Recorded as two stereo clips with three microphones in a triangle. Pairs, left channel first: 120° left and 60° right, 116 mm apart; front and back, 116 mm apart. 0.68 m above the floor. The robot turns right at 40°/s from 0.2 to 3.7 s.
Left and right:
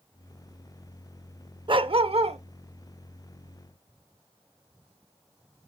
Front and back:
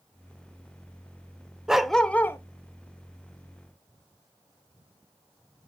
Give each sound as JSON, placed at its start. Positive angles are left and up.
{"t": 1.7, "sound": "a dog barking", "azimuth_deg": -95, "distance_m": 0.5}